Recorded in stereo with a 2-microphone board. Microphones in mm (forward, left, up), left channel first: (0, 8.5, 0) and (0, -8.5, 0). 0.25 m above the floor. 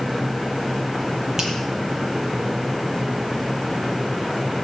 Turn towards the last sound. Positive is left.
turn(degrees=-35)  # may be behind; listen again after turning